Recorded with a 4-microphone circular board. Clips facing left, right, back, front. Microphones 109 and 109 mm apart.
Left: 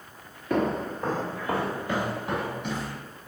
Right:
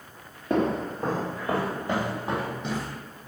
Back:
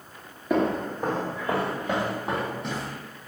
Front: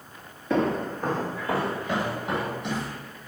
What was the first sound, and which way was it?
Footsteps, 110° right.